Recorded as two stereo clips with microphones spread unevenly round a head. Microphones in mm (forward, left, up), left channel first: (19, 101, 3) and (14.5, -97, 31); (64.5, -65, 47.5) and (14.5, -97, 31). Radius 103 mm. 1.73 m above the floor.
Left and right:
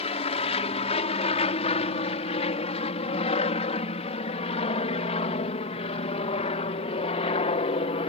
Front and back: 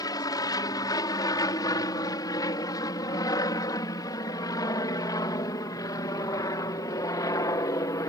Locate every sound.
0.0 s an aircraft: 30° left; by 8.1 s 35° left